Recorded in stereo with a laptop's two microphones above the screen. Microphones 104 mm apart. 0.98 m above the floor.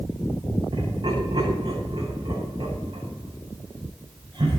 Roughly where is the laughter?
Right.